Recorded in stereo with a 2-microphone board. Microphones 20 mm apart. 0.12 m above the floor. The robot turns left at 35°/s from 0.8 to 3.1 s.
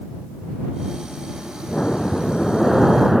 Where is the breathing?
45° left; by 3.2 s 5° right.